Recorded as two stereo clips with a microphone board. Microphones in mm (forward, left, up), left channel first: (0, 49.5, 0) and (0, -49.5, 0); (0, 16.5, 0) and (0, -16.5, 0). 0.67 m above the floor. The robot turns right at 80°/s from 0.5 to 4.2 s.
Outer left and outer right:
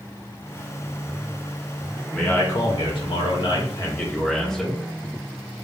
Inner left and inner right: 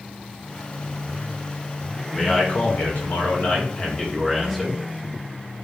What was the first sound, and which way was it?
A man speaking, 10° left.